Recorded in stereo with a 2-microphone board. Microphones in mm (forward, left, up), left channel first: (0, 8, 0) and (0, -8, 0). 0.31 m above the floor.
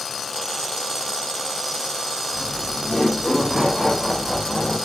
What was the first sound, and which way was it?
Laughter, 55° left (ahead or behind).